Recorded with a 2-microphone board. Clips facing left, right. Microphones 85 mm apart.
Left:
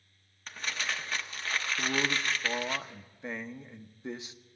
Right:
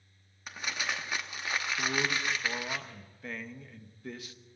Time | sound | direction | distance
0.5 | crumpling | 10° right (ahead or behind) | 1.0 m
1.8 | a man speaking | 20° left (ahead or behind) | 0.7 m